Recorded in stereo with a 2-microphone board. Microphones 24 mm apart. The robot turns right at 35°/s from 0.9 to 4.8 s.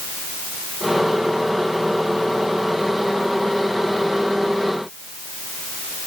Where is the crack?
No crack in this recording.